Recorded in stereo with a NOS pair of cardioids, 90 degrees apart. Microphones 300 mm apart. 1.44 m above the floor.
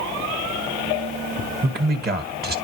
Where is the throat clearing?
I don't hear throat clearing.